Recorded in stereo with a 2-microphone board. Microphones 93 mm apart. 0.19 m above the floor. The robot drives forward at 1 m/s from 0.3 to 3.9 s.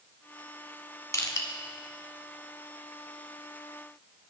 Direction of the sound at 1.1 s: 35° left (ahead or behind).